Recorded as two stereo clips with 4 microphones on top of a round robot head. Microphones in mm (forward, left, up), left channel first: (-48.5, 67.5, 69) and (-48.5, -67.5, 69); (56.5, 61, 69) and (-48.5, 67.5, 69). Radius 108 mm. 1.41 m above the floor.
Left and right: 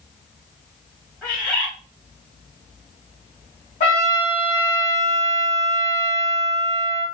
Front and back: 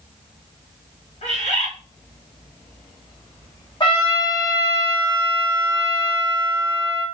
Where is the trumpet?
35° left, 1.8 m.